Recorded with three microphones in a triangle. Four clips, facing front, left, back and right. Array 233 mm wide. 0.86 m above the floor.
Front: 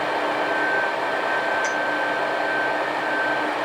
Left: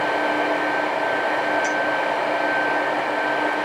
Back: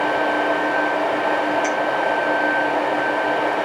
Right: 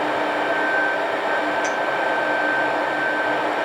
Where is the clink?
Straight ahead, 7.5 m.